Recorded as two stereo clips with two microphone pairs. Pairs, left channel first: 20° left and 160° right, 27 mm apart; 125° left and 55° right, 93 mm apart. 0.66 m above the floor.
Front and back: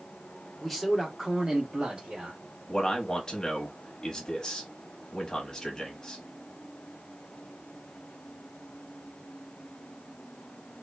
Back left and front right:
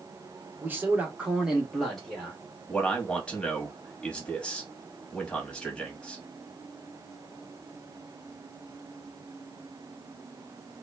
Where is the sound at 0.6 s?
40° right, 0.8 m; by 2.4 s 160° right, 1.1 m.